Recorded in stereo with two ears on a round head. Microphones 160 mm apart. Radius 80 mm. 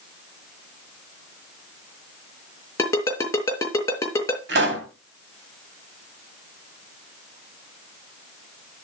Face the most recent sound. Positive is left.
turn(degrees=-65)  # may be behind; listen again after turning